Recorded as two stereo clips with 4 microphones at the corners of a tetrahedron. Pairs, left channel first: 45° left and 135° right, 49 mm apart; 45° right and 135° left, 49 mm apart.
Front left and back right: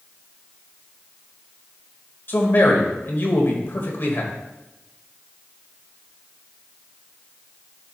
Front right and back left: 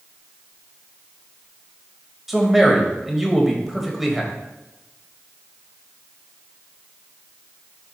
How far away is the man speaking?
About 1.5 m.